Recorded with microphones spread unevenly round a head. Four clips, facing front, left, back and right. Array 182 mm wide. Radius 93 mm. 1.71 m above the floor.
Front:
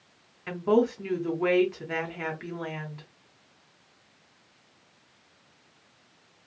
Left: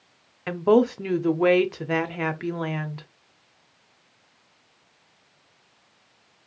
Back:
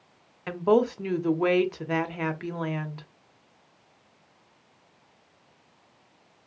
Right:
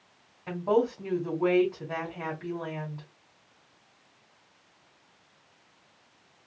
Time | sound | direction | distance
0.5 | a woman speaking | 95° left | 0.7 m